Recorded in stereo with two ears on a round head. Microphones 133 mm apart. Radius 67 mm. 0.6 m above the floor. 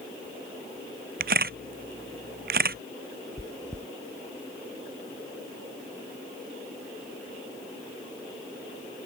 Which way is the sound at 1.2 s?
70° right (ahead or behind).